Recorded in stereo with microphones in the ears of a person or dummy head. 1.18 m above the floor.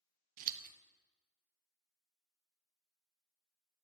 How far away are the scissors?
About 0.9 m.